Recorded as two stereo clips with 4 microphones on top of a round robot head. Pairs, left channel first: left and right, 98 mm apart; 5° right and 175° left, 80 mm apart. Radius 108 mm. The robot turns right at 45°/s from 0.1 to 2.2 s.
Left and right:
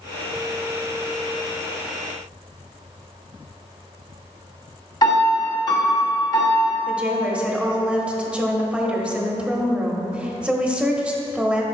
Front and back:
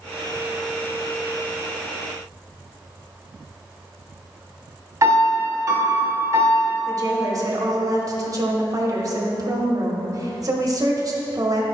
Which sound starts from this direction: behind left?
A piano, at 5.0 s.